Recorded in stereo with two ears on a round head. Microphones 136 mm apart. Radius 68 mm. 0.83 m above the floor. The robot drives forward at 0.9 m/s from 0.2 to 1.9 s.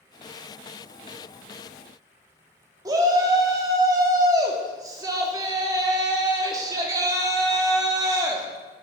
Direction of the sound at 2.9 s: 20° right (ahead or behind).